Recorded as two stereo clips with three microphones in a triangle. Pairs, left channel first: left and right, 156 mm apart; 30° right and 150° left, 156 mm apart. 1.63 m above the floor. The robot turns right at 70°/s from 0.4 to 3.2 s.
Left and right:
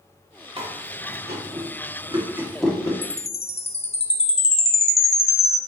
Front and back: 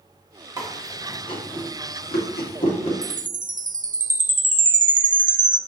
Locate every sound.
0.6 s chewing: 140° right, 1.6 m; by 2.9 s 20° left, 1.6 m
3.0 s a chime: 115° left, 0.6 m; by 5.6 s 130° left, 0.6 m